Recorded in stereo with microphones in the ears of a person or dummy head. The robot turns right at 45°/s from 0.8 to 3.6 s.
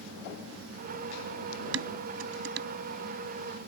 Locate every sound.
1.7 s dishes clattering: 75° right (ahead or behind); by 2.7 s 60° right (ahead or behind)